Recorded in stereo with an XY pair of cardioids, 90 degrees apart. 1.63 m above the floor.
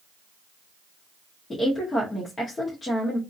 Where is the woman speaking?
40° left, 1.2 m.